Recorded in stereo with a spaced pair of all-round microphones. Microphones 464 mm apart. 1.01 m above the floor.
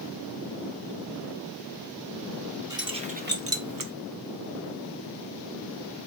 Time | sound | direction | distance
2.7 | keys jangling | 5° right (ahead or behind) | 1.1 m